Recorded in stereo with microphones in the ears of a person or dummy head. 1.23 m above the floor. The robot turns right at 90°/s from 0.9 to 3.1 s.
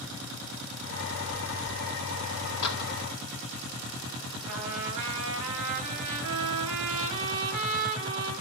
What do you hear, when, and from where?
2.6 s a door slam: 65° left (ahead or behind), 1.9 m; by 2.9 s 40° left (ahead or behind), 1.9 m
4.5 s a trumpet: 80° right, 8 m